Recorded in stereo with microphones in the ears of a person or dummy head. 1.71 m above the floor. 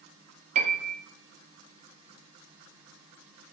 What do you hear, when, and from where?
0.6 s a piano: 35° right (ahead or behind), 1.1 m